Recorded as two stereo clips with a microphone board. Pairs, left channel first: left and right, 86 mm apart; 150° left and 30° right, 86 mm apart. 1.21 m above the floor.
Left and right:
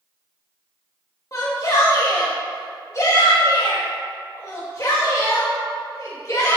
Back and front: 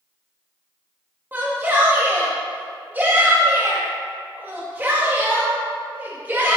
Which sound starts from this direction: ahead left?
A shout, at 1.3 s.